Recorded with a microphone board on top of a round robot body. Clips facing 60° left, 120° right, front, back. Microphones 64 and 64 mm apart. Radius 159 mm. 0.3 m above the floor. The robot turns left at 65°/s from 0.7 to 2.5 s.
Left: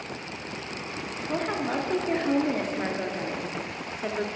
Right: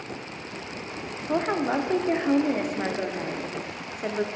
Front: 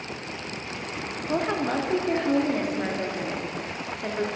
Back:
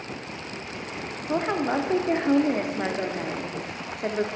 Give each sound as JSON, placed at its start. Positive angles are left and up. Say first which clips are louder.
{"t": 1.3, "sound": "a woman speaking", "louder": "right 4 dB, back 1 dB", "azimuth_deg": -110, "distance_m": 0.9}